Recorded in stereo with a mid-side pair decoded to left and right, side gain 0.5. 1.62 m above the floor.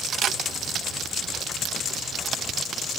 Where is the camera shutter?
60° right.